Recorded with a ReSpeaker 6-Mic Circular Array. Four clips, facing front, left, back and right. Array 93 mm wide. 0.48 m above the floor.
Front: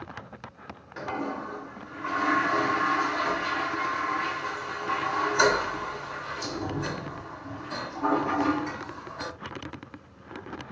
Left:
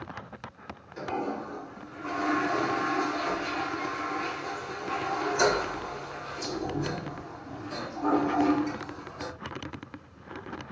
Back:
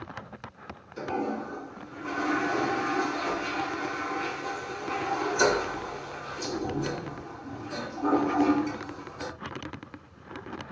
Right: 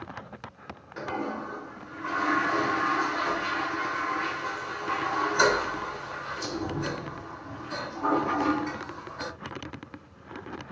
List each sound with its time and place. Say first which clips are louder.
1.0 s a toilet flushing: even, back 1 dB; 30° right, 1.0 m